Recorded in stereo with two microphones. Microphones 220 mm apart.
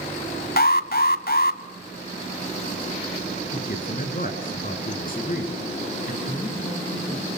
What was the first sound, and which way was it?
An alarm, 45° left (ahead or behind).